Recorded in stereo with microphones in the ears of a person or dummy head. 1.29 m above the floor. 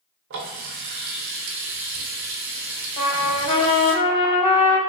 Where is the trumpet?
30° left (ahead or behind), 0.7 m.